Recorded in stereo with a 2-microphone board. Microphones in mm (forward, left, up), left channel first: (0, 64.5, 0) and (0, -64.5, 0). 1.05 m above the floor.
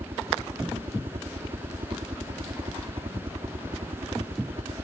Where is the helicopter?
50° right (ahead or behind).